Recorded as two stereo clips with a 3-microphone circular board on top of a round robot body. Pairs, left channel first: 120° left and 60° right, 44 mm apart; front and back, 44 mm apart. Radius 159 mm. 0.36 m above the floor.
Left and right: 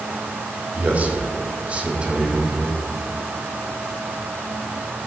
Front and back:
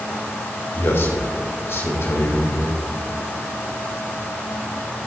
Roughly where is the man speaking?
Ahead.